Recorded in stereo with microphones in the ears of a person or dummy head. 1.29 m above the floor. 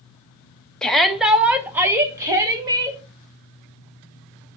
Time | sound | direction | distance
0.8 | a shout | centre (ahead or behind) | 0.9 m